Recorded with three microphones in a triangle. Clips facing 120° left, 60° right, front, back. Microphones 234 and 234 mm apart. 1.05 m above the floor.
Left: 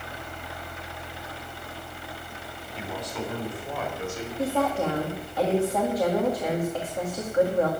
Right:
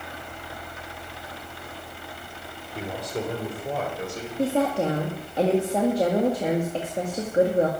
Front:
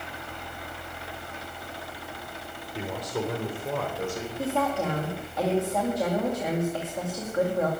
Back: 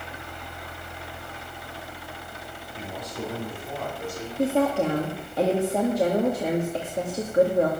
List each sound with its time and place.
2.8 s a man speaking: 20° right, 3.5 m; by 4.3 s 10° right, 5 m
4.4 s a woman speaking: 125° right, 2 m